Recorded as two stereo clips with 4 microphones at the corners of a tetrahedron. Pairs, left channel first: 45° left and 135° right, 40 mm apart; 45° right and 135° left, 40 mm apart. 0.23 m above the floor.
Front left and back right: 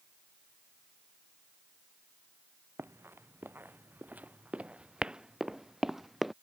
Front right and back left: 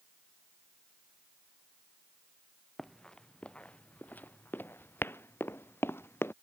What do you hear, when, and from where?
2.8 s running footsteps: 125° right; by 6.3 s 45° right